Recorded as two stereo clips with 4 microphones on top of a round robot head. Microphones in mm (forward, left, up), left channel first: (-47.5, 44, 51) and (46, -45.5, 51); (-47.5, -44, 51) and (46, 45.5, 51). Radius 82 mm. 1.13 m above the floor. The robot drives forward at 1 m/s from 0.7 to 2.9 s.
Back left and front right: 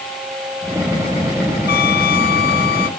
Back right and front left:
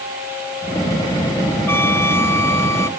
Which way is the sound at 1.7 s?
150° left.